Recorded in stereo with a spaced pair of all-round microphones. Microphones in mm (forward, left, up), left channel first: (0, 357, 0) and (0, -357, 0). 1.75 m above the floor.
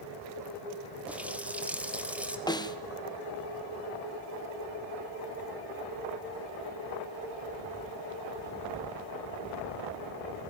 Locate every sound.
1.1 s a running tap: centre (ahead or behind), 2.5 m
2.5 s a snare drum: 5° left (ahead or behind), 1.4 m